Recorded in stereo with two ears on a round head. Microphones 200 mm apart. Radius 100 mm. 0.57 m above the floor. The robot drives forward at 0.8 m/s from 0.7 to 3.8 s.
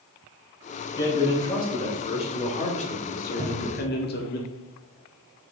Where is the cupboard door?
15° right (ahead or behind), 2 m.